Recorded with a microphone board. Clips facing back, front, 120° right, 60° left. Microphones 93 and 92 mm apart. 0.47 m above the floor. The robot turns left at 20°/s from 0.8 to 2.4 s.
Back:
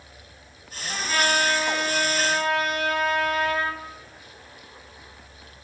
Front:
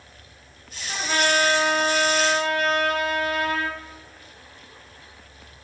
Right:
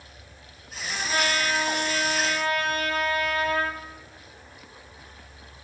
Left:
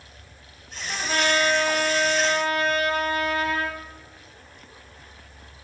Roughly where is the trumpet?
Ahead left.